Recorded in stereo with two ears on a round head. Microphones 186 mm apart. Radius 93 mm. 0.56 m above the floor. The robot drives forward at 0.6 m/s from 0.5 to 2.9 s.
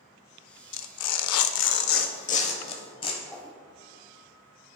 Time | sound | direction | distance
0.7 | tearing paper | 60° left (ahead or behind) | 0.6 m
3.3 | a whoosh | 10° left (ahead or behind) | 0.8 m